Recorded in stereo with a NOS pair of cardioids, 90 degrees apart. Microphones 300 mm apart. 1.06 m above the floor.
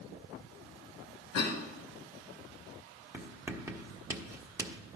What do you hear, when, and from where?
1.3 s a cough: 65° left, 1.8 m
3.1 s writing: 10° right, 1.0 m